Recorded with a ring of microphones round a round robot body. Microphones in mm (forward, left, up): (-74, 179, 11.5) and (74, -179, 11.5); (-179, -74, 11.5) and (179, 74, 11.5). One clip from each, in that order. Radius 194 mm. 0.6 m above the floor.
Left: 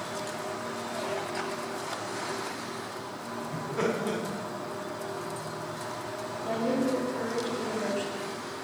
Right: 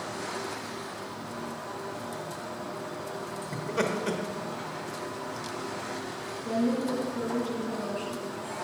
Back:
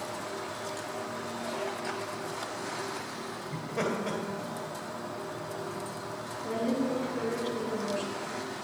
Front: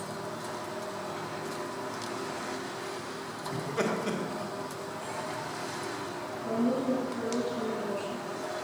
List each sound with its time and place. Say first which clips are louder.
3.5 s laughter: right 1 dB, front 1 dB; 55° right, 1.3 m
6.4 s a woman speaking: left 1 dB, front 1 dB; 170° left, 2 m